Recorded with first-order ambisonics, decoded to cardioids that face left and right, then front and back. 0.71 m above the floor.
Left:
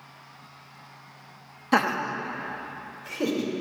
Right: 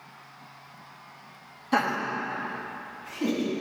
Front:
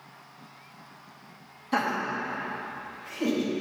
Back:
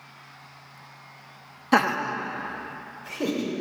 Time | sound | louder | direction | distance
1.7 | laughter | left 2 dB, back 5 dB | 150° left | 0.6 m